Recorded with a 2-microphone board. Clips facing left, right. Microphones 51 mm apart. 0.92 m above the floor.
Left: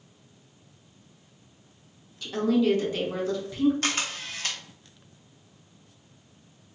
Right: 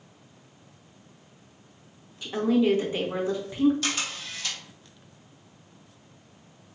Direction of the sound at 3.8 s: 45° left (ahead or behind).